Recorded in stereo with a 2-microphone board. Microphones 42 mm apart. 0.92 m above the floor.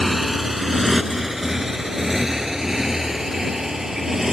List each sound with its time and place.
0.0 s a motorcycle: 5° right (ahead or behind); by 4.3 s 10° right (ahead or behind)